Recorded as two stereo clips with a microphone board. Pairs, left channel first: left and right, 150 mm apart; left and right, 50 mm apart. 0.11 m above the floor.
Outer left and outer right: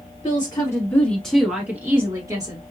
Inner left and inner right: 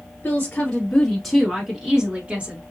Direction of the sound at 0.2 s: 35° left (ahead or behind).